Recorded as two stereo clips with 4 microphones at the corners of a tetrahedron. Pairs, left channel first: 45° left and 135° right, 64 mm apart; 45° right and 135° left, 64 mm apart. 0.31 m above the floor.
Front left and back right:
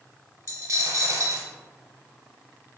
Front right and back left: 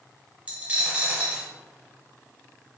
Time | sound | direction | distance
0.5 | a dropped coin | 160° right | 0.8 m